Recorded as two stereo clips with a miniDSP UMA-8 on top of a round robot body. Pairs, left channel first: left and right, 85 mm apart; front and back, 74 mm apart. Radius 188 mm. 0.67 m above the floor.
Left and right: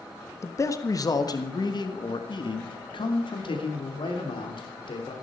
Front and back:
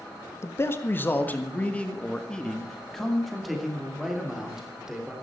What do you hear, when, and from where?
0.4 s a man speaking: 45° left, 1.7 m; by 5.1 s 100° left, 3.5 m